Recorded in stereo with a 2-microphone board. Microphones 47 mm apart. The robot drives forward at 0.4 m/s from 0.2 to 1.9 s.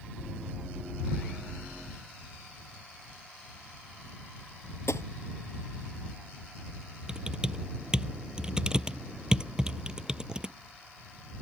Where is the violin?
No violin in this recording.